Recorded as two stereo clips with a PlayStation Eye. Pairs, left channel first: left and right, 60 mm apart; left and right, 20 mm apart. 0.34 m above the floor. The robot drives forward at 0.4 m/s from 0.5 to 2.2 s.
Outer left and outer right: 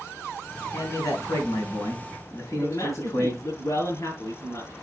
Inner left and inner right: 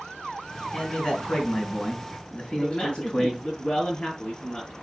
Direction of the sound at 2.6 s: 75° left (ahead or behind).